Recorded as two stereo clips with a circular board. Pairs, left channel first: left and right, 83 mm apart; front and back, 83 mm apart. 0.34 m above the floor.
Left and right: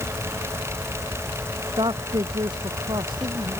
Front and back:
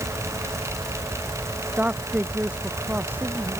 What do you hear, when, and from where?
1.8 s a man speaking: 110° right